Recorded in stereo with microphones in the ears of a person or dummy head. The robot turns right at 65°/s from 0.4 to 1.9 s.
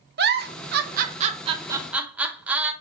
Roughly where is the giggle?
Right.